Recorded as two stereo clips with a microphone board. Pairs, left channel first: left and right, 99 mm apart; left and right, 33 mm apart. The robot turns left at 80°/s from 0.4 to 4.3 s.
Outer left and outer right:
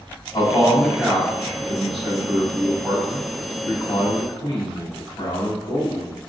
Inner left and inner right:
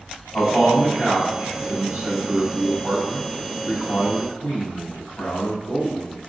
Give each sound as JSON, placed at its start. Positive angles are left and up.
{"t": 0.3, "sound": "a man speaking", "azimuth_deg": 40, "distance_m": 1.4}